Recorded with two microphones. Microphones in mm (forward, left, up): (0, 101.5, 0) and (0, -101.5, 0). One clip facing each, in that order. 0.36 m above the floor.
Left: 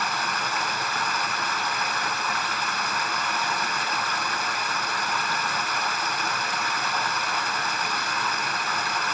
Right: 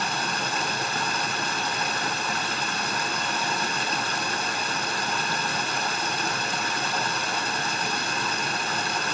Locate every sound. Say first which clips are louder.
0.0 s running water: right 1 dB; 30° right (ahead or behind), 1.1 m